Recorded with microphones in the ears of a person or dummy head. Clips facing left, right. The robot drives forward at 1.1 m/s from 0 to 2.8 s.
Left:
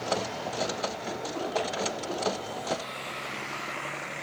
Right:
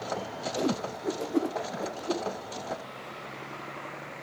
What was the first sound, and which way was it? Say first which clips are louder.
A whoosh: right 5 dB; 80° right.